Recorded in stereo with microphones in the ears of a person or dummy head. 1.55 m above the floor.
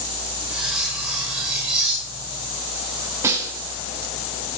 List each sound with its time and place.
0.5 s cutlery clinking: 5° right (ahead or behind), 3.5 m
3.2 s a snare drum: 15° right (ahead or behind), 3 m